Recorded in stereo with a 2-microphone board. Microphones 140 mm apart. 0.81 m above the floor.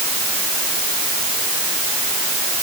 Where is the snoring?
I don't hear snoring.